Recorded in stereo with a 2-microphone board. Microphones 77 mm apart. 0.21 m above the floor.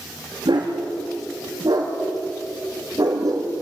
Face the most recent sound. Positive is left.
turn(degrees=-50)  # may be behind; listen again after turning